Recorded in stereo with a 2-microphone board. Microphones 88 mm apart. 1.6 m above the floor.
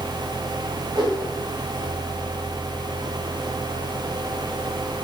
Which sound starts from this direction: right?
A whoosh, at 0.9 s.